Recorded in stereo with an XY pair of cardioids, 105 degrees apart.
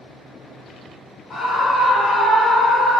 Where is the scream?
55° left, 1.7 m.